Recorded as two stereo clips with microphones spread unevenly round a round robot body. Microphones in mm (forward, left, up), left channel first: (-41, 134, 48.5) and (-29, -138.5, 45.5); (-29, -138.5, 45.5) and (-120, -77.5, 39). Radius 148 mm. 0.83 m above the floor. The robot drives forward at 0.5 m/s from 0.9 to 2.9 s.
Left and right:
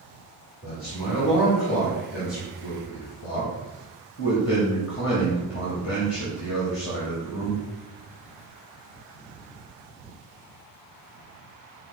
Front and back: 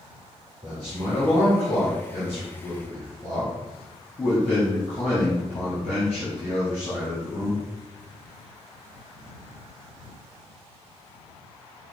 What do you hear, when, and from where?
0.6 s a man speaking: 20° left, 1.8 m; by 7.6 s 45° left, 1.0 m